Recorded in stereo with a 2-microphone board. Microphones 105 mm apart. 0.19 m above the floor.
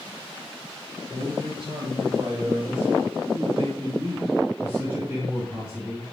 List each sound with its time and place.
1.1 s a man speaking: 65° right (ahead or behind), 3.5 m; by 6.1 s 5° right (ahead or behind), 2.5 m